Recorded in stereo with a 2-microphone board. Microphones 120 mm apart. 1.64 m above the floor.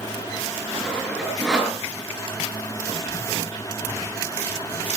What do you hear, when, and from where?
0.8 s sawing: 5° right (ahead or behind), 6.5 m